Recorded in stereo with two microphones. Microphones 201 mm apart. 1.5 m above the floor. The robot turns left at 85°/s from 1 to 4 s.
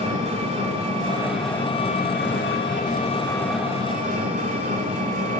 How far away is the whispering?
I don't hear whispering.